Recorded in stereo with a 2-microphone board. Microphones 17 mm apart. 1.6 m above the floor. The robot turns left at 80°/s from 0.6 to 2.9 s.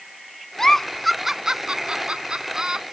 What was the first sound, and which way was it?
A giggle, 35° left (ahead or behind).